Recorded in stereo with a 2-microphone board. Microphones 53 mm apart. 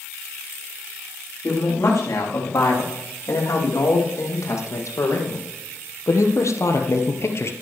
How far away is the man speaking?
About 8.5 m.